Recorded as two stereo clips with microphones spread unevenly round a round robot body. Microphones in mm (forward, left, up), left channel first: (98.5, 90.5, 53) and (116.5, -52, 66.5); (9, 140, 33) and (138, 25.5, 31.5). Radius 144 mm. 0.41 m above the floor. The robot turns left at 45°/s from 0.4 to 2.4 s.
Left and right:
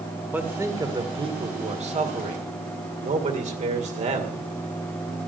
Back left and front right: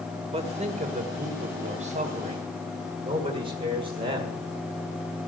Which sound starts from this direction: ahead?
A man speaking, at 0.3 s.